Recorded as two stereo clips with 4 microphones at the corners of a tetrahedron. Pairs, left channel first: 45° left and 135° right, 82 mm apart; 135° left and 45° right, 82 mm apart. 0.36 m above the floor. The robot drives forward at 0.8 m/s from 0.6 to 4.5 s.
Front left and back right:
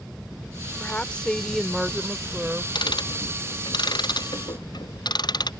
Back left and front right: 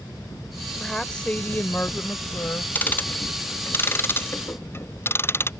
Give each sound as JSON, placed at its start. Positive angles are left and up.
{"t": 0.8, "sound": "a woman speaking", "azimuth_deg": 60}
{"t": 2.8, "sound": "ticking", "azimuth_deg": 65}